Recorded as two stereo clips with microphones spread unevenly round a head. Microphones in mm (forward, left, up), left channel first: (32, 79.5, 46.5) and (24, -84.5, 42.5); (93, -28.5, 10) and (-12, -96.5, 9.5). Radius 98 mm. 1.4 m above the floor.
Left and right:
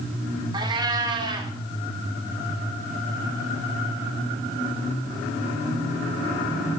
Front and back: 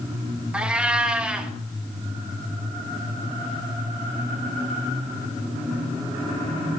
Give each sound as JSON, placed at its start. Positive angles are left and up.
{"t": 0.5, "sound": "a cat meowing", "azimuth_deg": -80, "distance_m": 0.7}